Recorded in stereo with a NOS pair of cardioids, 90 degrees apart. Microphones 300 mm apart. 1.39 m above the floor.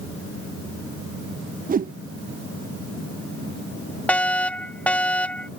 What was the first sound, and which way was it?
A whoosh, 30° right.